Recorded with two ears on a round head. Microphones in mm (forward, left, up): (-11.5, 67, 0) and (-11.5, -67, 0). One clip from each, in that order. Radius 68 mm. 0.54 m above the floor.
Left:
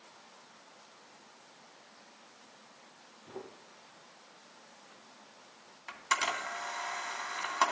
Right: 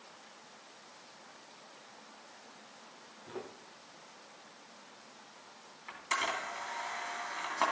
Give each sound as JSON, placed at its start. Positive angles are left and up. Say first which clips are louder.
{"t": 3.3, "sound": "footsteps", "louder": "right 2 dB", "side_deg": -35, "distance_m": 5.0}
{"t": 5.9, "sound": "a camera shutter", "louder": "left 2 dB", "side_deg": 30, "distance_m": 2.5}